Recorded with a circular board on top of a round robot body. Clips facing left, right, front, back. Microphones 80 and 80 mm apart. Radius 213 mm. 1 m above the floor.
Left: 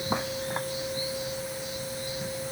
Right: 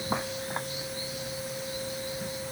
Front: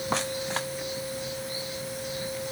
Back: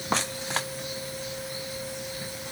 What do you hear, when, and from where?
Only background noise.